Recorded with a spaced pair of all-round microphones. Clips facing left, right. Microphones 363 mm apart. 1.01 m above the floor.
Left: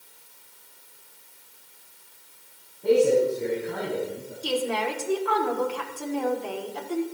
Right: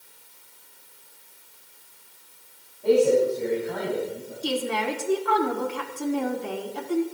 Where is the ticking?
I don't hear ticking.